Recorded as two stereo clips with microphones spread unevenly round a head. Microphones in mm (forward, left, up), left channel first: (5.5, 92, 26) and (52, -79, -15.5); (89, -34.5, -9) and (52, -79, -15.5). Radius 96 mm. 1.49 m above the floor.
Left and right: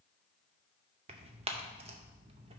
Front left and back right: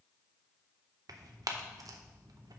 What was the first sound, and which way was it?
Tearing paper, 130° right.